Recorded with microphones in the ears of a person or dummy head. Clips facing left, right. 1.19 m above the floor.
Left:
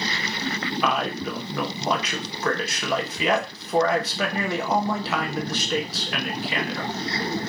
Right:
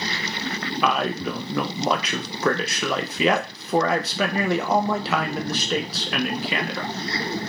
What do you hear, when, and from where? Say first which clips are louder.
0.8 s a man speaking: right 3 dB; 65° right (ahead or behind), 0.6 m